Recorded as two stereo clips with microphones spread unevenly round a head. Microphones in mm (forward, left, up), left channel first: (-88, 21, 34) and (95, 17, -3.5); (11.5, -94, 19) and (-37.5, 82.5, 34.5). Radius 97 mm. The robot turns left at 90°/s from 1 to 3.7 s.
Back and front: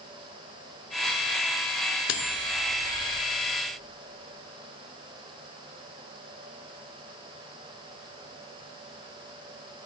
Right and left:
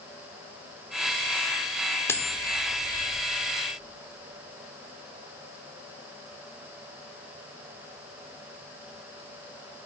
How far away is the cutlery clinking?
About 1.6 m.